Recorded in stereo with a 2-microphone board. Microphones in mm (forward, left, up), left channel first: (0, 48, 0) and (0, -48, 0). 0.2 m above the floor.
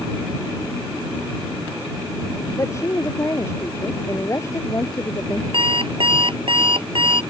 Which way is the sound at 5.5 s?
65° right (ahead or behind).